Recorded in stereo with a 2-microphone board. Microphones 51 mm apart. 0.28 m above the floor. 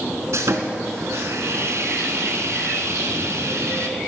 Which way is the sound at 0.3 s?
70° right (ahead or behind).